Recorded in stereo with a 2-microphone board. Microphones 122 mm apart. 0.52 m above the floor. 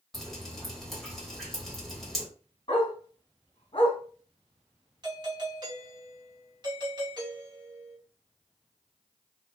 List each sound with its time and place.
0.1 s dripping: centre (ahead or behind), 3 m
2.7 s a dog barking: 45° left (ahead or behind), 2.5 m
5.0 s a doorbell: 35° right (ahead or behind), 2 m